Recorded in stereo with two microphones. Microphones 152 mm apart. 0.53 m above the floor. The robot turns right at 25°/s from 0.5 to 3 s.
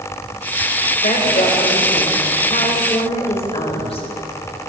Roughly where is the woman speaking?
Left.